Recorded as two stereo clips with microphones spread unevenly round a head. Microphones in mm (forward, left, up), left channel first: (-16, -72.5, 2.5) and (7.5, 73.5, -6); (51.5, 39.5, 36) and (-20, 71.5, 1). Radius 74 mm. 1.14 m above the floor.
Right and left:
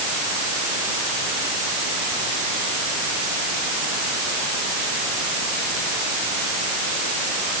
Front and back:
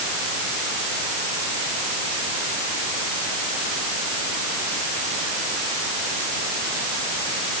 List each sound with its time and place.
Only background noise.